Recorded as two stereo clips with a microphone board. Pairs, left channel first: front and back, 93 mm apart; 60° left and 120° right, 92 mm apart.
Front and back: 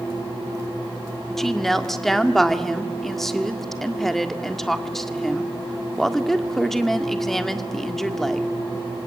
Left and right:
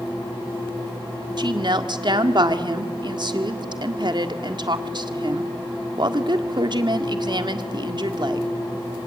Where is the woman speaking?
85° right, 1.7 m.